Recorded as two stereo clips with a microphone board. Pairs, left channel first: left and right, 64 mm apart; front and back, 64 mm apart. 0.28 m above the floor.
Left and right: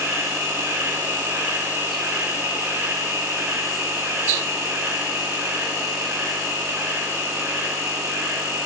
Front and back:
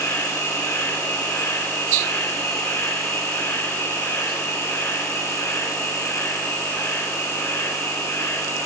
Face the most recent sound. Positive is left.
turn(degrees=-35)